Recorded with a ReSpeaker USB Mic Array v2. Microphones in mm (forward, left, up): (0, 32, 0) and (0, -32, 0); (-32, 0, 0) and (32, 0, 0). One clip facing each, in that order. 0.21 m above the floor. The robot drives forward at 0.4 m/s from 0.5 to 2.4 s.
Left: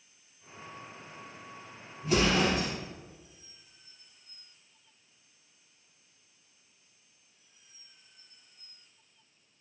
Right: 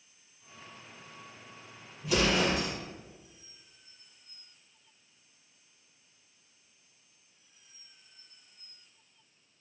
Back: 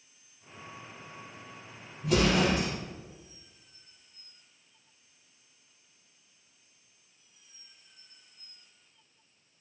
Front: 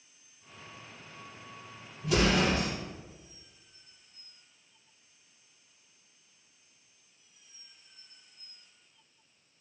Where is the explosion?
145° left, 4.5 m.